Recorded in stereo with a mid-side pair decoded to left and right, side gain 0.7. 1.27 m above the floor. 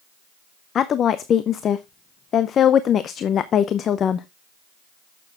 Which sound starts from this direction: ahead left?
A woman speaking, at 0.8 s.